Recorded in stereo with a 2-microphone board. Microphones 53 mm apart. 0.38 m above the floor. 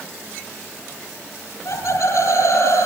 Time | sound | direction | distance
1.6 | laughter | 80° left | 6.5 m